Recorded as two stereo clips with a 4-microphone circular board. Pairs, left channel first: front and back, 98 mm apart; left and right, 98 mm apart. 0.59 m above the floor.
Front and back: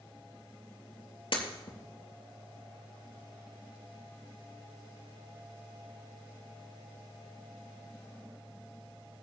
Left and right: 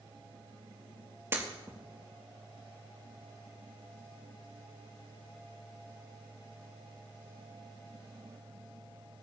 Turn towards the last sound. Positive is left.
turn(degrees=-25)